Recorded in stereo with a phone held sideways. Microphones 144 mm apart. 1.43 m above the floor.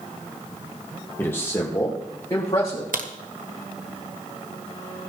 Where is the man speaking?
15° left (ahead or behind), 1.3 m; by 2.8 s 25° left (ahead or behind), 3 m.